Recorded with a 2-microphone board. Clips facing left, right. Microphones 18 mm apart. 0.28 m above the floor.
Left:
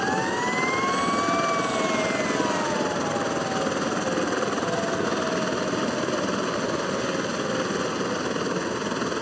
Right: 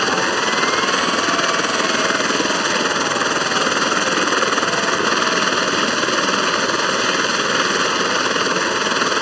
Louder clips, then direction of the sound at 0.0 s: Right 7 dB; 55° right (ahead or behind).